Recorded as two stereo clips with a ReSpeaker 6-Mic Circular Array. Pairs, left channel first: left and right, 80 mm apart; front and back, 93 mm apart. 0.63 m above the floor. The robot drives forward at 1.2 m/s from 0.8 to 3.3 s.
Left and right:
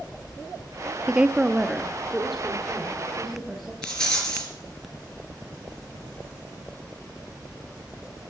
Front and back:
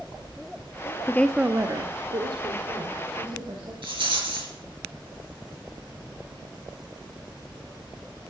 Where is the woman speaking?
25° right, 0.6 m; by 3.7 s 175° right, 2.5 m.